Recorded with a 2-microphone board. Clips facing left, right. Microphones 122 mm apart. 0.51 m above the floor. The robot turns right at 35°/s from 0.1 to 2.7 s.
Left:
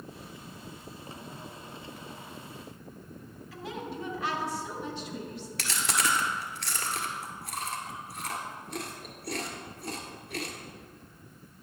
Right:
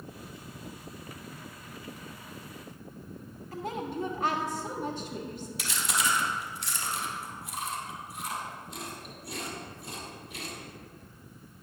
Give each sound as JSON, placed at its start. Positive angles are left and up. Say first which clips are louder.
{"t": 3.5, "sound": "a woman speaking", "louder": "right 4 dB", "side_deg": -45, "distance_m": 1.4}
{"t": 5.6, "sound": "chewing", "louder": "left 1 dB", "side_deg": 75, "distance_m": 1.4}